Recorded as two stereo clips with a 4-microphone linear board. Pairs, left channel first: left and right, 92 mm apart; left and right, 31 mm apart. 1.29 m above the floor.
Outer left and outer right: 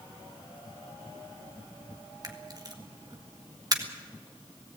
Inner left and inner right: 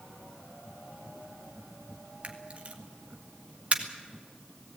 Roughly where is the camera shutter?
Right.